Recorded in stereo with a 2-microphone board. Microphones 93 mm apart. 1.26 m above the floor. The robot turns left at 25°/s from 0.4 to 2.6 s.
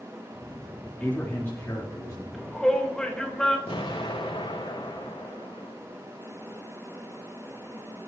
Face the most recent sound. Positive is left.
turn(degrees=70)  # may be behind; listen again after turning